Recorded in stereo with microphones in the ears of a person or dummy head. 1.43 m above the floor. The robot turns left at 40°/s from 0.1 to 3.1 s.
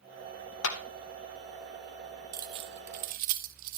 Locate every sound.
0.6 s a clap: 75° left (ahead or behind), 1.2 m; by 0.8 s 80° left, 1.2 m
2.3 s keys jangling: 20° right (ahead or behind), 0.9 m; by 3.8 s 50° right (ahead or behind), 0.9 m